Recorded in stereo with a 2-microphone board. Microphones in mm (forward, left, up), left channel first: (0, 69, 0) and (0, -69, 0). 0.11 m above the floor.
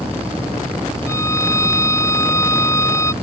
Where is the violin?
20° left (ahead or behind).